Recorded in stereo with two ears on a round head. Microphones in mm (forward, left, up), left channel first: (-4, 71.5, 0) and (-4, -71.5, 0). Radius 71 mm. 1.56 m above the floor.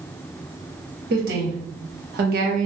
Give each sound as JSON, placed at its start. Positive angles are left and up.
{"t": 1.1, "sound": "a woman speaking", "side_deg": -65, "distance_m": 1.7}